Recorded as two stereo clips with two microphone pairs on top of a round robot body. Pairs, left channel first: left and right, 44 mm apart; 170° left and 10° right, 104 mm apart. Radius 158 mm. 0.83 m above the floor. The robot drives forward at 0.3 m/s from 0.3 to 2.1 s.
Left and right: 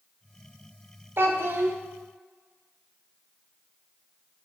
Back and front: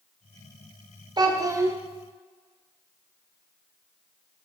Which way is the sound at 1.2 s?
55° right.